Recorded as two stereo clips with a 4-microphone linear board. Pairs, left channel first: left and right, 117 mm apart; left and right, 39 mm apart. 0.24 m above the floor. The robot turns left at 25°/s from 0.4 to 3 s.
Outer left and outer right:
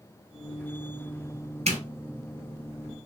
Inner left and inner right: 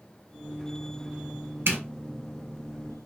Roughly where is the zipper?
Right.